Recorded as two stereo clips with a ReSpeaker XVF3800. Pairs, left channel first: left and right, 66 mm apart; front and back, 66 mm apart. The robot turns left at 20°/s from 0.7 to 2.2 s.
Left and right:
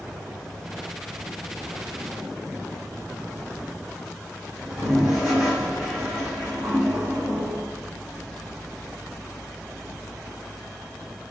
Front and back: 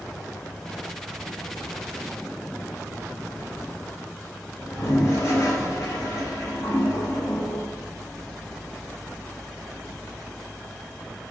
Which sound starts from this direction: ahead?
A toilet flushing, at 4.6 s.